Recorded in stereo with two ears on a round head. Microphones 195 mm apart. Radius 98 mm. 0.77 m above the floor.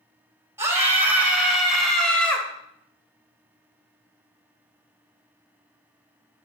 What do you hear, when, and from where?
0.6 s a scream: 15° right (ahead or behind), 3.5 m; by 2.5 s 10° left (ahead or behind), 3 m